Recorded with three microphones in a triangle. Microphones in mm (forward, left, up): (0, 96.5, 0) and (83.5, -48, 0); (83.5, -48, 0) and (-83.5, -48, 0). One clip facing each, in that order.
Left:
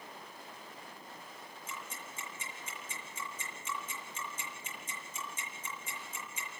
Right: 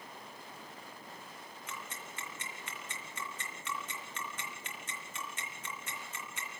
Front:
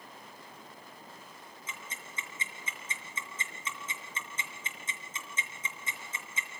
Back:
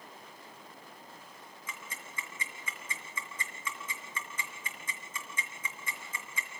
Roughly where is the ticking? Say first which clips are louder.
Even, even; ahead right.